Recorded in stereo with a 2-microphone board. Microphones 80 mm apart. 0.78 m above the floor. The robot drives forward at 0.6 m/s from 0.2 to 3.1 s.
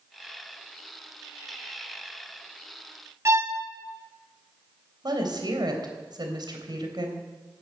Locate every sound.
3.2 s a violin: 35° right (ahead or behind), 1.0 m
5.0 s a woman speaking: 65° right (ahead or behind), 3.5 m